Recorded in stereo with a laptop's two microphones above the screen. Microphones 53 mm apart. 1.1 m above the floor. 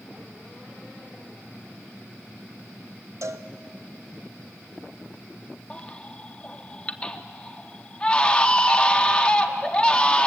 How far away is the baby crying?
About 1.0 m.